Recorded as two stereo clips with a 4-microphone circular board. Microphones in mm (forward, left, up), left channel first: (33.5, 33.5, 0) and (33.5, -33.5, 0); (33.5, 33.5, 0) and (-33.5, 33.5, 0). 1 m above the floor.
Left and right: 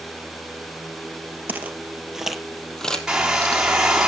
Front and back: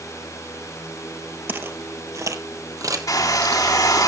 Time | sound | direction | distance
1.5 | footsteps | 140° right | 1.4 m
3.1 | a hair dryer | 10° right | 3 m